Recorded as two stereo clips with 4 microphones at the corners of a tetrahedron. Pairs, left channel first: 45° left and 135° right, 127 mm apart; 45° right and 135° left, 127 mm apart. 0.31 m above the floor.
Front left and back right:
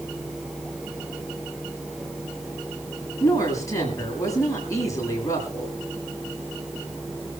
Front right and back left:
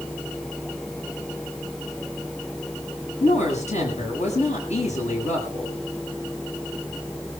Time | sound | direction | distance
3.2 | a woman speaking | 20° right | 7.5 m